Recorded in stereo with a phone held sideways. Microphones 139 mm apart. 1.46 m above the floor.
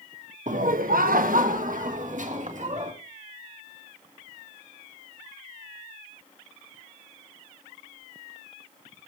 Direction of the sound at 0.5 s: 60° right (ahead or behind).